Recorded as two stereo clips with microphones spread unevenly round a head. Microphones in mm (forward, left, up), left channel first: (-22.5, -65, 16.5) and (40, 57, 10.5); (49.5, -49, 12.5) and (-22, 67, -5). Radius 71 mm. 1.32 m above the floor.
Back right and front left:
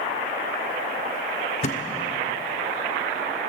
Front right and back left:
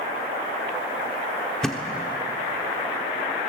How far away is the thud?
About 1.2 m.